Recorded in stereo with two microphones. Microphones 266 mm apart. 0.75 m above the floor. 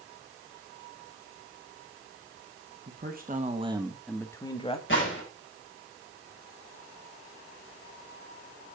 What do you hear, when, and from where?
2.9 s a man speaking: 40° right (ahead or behind), 1.5 m; by 4.8 s 25° left (ahead or behind), 1.5 m
4.9 s a gunshot: 50° left (ahead or behind), 5 m